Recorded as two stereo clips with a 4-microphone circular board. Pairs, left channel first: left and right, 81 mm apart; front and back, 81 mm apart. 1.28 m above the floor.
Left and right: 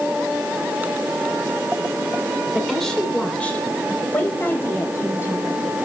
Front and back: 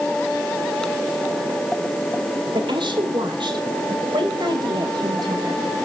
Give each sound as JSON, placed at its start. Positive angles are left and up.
{"t": 2.5, "sound": "a woman speaking", "azimuth_deg": 180, "distance_m": 3.5}